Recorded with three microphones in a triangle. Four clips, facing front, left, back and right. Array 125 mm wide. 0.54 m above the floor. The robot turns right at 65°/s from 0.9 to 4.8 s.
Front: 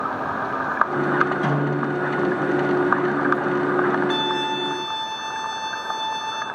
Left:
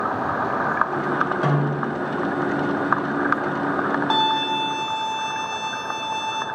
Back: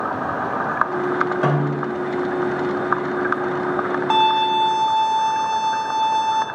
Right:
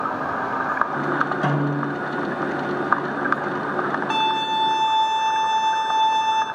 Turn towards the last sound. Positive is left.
turn(degrees=-155)